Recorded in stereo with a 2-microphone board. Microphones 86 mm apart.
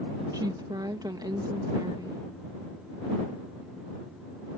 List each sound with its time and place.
0.3 s a woman speaking: 50° right (ahead or behind)